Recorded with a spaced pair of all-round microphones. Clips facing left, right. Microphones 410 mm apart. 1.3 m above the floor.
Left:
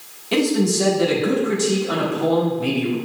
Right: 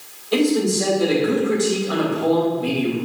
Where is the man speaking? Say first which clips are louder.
Right 1 dB; 75° left (ahead or behind), 1.7 m.